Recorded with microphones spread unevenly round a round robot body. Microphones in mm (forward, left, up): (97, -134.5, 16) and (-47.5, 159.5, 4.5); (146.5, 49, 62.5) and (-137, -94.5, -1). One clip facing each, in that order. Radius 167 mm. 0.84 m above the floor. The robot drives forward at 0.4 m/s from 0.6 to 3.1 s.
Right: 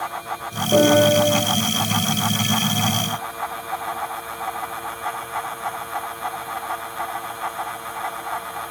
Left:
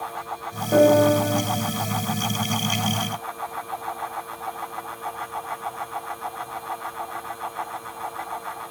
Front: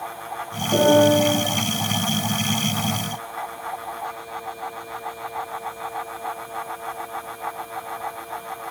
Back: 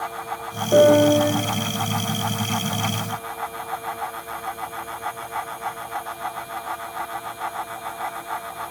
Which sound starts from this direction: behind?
A piano, at 0.7 s.